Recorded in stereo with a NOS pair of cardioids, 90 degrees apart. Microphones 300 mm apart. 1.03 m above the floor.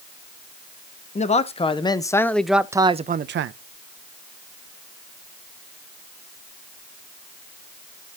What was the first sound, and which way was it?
A man speaking, 25° left.